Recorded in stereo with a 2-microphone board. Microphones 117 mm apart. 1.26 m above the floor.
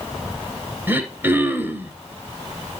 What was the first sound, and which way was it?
Throat clearing, 20° right (ahead or behind).